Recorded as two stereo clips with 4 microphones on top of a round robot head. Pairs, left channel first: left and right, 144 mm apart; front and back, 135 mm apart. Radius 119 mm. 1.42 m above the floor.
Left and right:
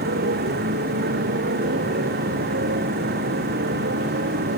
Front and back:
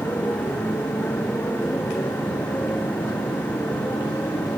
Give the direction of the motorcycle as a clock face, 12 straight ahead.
3 o'clock.